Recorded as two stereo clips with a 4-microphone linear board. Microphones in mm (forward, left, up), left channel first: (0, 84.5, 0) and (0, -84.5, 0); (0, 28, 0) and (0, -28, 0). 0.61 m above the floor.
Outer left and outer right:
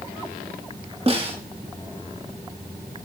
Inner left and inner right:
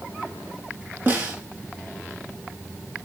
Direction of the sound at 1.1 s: 35° right (ahead or behind).